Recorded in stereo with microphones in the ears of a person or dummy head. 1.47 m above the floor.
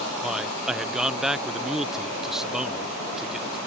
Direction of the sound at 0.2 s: 5° right (ahead or behind).